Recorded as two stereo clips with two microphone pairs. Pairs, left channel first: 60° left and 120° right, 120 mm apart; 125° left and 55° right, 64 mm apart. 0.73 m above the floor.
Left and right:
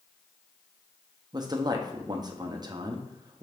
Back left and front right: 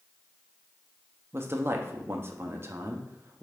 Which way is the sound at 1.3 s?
85° right.